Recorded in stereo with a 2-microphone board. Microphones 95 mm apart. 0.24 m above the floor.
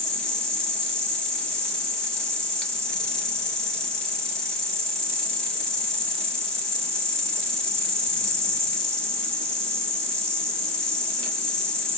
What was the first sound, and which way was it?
An insect, 5° left (ahead or behind).